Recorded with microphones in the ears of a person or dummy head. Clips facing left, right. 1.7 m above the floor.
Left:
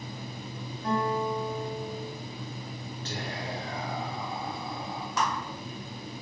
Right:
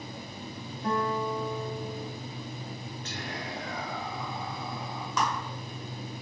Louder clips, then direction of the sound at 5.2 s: Even; 75° right (ahead or behind).